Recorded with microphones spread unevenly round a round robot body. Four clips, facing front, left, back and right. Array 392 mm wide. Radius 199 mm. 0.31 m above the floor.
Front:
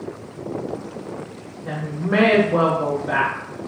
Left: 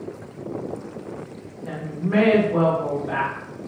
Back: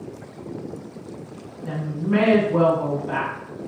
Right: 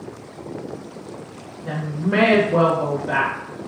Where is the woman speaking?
35° right, 1.3 m.